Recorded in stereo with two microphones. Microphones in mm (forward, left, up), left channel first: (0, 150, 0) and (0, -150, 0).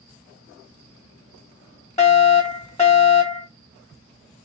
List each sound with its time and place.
2.0 s a fire alarm: 25° left (ahead or behind), 1.4 m